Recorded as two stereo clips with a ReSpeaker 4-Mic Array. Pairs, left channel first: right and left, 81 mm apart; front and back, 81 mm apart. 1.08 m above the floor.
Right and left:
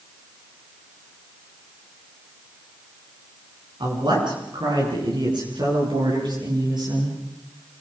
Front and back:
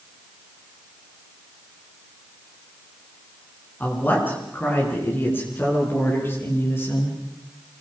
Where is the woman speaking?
65° left, 9.5 m; by 7.2 s 60° left, 13 m.